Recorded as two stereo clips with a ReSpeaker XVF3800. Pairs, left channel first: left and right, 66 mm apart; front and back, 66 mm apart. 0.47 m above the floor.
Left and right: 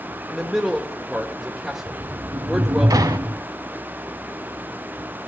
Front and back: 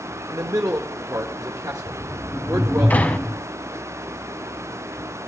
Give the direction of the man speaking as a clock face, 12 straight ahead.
6 o'clock.